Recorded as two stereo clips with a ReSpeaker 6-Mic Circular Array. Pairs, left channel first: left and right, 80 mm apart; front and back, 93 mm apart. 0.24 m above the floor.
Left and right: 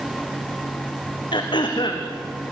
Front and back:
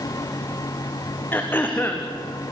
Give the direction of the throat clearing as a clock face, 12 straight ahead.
10 o'clock.